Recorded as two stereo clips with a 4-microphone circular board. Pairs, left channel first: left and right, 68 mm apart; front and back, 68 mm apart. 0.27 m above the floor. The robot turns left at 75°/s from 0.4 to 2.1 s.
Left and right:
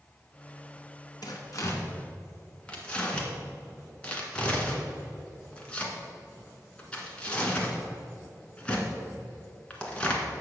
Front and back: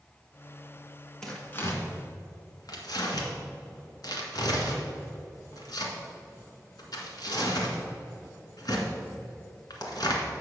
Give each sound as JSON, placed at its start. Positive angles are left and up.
{"t": 1.2, "sound": "tearing paper", "azimuth_deg": 85, "distance_m": 1.7}